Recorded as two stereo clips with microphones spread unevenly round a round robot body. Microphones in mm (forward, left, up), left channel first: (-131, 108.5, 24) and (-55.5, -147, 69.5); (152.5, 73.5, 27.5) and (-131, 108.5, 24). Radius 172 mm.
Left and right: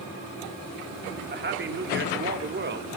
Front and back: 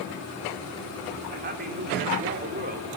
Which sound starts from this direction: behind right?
A man speaking, at 1.3 s.